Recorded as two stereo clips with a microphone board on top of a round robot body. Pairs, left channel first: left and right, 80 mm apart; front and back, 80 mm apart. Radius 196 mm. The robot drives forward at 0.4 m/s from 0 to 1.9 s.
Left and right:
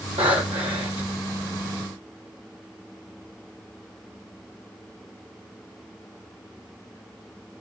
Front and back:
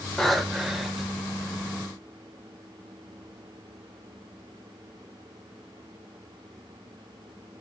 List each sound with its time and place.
0.2 s breathing: 85° right, 1.1 m; by 1.1 s 105° right, 1.2 m